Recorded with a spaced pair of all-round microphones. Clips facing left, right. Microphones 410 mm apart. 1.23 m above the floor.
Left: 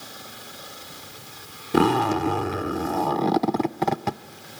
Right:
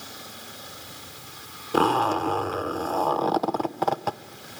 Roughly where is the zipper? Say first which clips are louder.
Left 3 dB; left.